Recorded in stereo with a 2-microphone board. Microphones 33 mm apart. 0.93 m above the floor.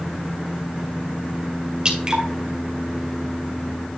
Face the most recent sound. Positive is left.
turn(degrees=-30)  # may be behind; listen again after turning